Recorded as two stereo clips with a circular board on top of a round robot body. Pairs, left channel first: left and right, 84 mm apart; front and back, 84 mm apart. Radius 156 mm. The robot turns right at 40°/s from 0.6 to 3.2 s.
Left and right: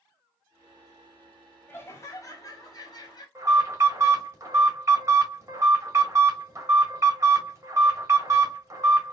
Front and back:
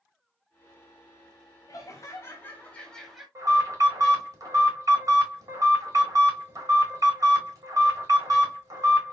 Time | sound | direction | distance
1.7 | laughter | 35° left | 1.8 m
3.4 | an alarm | 140° right | 3 m